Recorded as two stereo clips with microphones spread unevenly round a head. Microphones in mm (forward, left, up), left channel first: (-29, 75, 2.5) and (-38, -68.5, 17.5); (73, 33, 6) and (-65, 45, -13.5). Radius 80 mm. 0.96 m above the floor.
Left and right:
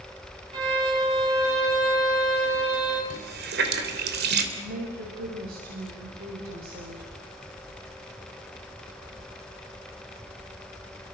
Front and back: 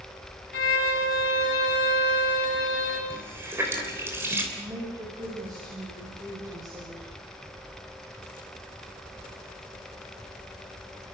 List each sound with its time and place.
0.5 s a violin: 30° right, 7.5 m
3.1 s a running tap: 105° right, 3 m
4.6 s a woman speaking: 115° right, 5.5 m